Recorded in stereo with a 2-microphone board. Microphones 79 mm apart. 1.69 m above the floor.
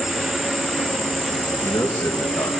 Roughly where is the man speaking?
Left.